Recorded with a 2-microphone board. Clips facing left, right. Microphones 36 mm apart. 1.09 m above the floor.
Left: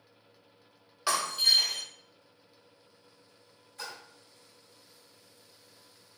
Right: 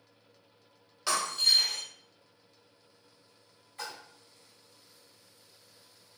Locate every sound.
1.1 s breaking glass: 15° left (ahead or behind), 1.2 m
3.8 s a splash: 30° right (ahead or behind), 1.9 m